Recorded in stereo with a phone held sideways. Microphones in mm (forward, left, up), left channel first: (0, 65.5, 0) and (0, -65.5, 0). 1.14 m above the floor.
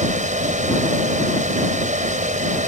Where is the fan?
90° right.